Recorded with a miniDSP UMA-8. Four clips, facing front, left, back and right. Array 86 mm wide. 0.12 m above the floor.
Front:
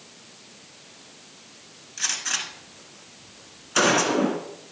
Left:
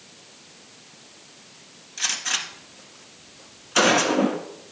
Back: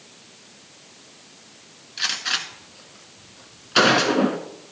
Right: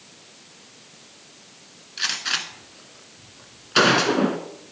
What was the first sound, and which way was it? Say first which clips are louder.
A gunshot: right 2 dB, back 4 dB; 135° right.